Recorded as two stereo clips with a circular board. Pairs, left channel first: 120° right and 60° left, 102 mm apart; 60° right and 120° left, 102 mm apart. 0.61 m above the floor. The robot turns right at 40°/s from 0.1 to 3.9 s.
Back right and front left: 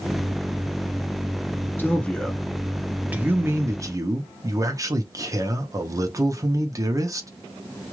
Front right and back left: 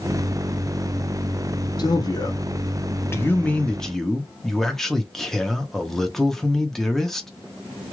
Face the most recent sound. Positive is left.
turn(degrees=25)